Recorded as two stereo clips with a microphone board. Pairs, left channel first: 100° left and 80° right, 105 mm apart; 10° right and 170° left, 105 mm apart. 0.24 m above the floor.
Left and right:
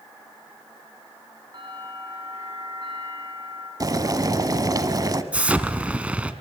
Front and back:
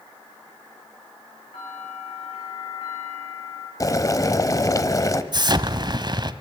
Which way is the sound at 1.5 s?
30° right.